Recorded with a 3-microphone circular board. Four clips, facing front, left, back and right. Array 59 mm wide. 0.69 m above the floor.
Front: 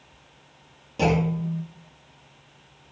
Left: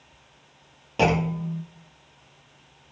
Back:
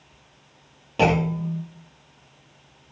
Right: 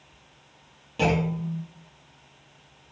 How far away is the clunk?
About 0.5 m.